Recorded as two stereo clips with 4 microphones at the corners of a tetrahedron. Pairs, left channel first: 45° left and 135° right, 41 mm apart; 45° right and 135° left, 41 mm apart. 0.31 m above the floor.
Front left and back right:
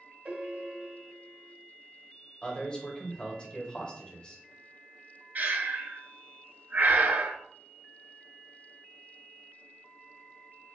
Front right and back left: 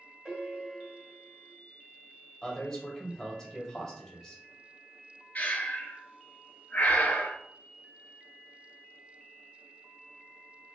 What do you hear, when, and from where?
0.2 s a piano: 140° right, 1.8 m
2.4 s a man speaking: 20° left, 1.1 m
5.3 s breathing: 100° right, 0.7 m